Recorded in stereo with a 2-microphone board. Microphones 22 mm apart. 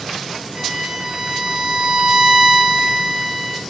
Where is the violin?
20° right (ahead or behind), 3 m.